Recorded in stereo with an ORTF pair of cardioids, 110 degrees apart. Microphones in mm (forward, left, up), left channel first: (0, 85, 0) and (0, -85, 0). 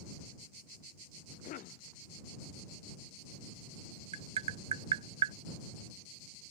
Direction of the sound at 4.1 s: 35° right.